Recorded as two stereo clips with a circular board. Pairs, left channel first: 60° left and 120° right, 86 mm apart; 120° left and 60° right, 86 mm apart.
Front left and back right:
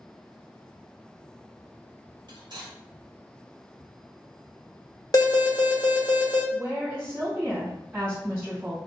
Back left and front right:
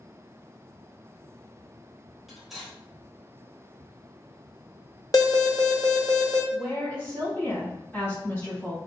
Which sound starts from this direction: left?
An alarm, at 5.1 s.